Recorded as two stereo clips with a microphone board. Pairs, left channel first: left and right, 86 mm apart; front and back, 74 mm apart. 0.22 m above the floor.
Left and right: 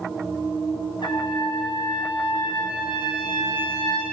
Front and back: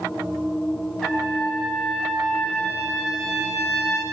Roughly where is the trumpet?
Left.